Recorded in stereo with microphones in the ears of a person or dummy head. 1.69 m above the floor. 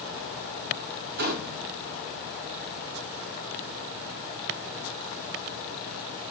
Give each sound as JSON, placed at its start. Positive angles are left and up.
{"t": 1.2, "sound": "a gunshot", "side_deg": -50, "distance_m": 0.8}